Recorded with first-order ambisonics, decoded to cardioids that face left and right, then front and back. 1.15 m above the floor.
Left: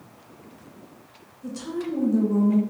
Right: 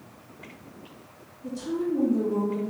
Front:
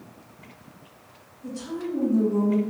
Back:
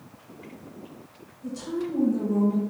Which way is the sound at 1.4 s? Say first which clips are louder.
Right 2 dB, back 1 dB; 100° left.